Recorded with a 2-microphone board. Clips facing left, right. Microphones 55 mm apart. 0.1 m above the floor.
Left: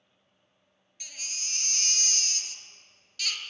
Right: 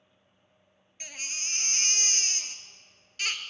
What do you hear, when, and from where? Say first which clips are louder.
1.0 s a baby crying: right 4 dB; 35° right (ahead or behind), 0.7 m